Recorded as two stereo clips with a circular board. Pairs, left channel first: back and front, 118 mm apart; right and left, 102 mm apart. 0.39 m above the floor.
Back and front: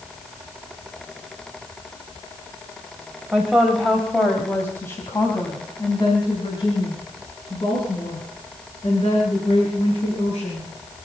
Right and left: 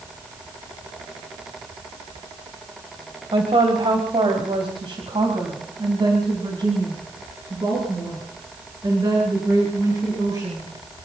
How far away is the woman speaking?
About 2.5 m.